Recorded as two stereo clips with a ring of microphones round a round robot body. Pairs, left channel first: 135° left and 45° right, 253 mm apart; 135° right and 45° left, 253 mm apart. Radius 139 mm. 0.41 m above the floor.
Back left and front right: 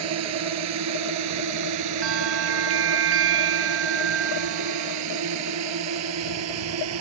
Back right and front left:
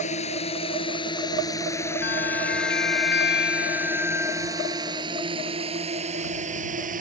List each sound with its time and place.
0.0 s a drone: 70° right; by 7.0 s 15° right
2.0 s a bell: 85° right